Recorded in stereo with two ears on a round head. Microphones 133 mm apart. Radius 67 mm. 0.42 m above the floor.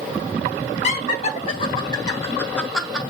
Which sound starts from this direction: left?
Laughter, at 0.8 s.